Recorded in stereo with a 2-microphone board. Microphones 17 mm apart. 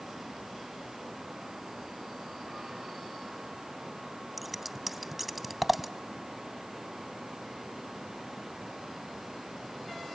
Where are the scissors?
5° right (ahead or behind), 0.6 m.